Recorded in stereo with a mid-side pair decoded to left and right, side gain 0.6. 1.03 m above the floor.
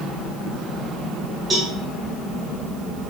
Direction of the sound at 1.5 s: 25° right.